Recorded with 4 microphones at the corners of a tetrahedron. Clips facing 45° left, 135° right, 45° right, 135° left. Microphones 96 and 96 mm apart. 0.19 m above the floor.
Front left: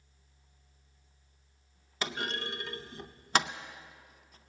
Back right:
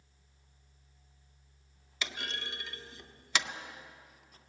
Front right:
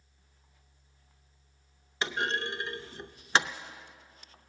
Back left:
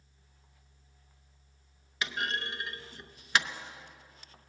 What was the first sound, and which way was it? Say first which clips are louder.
A clunk: front left 5 dB, front right 3 dB; 5° left.